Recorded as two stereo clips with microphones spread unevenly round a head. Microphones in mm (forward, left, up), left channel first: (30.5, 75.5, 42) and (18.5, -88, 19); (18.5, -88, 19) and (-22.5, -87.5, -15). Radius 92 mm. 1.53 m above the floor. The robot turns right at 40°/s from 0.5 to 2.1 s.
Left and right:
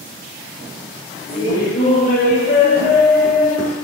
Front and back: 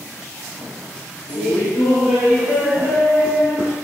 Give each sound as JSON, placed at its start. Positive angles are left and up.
{"t": 1.3, "sound": "laughter", "azimuth_deg": 5, "distance_m": 1.0}